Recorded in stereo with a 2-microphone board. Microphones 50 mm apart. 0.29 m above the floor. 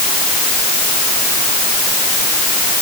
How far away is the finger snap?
No finger snap in this recording.